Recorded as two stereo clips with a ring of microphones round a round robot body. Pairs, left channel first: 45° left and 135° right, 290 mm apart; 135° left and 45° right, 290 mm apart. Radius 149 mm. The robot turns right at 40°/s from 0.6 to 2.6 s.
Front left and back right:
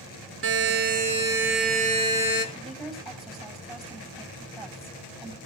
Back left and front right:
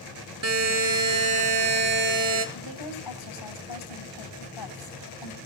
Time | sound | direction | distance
0.4 | a buzzer | 85° right | 5.5 m
2.5 | a woman speaking | 135° left | 7 m